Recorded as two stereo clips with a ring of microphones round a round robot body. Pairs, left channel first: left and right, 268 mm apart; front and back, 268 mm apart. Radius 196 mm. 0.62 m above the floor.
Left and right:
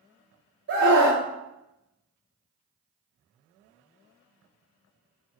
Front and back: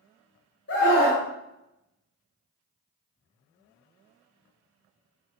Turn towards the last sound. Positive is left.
turn(degrees=-45)